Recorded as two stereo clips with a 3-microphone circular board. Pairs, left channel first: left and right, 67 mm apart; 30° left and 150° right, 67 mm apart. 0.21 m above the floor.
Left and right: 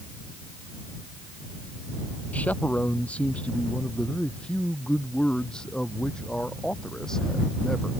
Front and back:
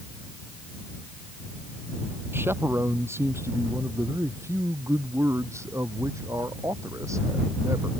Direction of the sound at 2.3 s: 155° left.